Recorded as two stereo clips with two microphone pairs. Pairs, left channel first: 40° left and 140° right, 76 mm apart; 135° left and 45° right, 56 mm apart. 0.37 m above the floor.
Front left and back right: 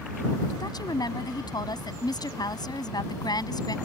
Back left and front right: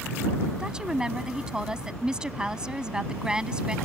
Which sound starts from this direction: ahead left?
A woman speaking, at 0.6 s.